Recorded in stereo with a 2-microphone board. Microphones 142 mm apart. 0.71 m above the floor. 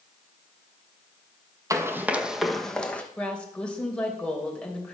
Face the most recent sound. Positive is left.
turn(degrees=10)  # may be behind; listen again after turning